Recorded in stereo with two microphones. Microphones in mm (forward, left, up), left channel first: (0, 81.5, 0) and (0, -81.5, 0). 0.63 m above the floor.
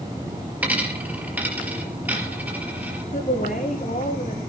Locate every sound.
0.6 s a dropped coin: 10° right (ahead or behind), 4.5 m
3.1 s a woman speaking: 65° left (ahead or behind), 9 m